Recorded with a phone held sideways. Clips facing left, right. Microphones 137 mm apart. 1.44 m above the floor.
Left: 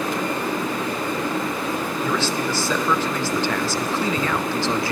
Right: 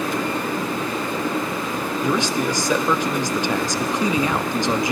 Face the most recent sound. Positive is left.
turn(degrees=-15)  # may be behind; listen again after turning